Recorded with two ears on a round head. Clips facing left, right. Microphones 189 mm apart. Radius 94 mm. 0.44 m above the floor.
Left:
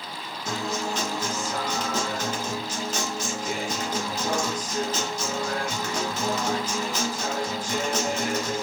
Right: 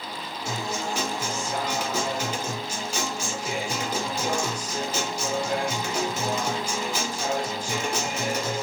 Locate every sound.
0.5 s a guitar: 10° right (ahead or behind), 0.7 m